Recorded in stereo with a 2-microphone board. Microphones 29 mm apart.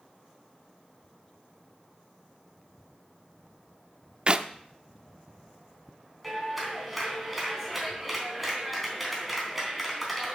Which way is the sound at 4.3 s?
40° right (ahead or behind).